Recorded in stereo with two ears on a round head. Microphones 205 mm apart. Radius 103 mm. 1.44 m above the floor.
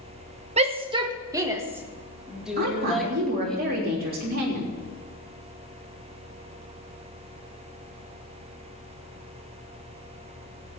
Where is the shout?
30° right (ahead or behind), 1.3 m; by 3.6 s 5° left (ahead or behind), 2.5 m.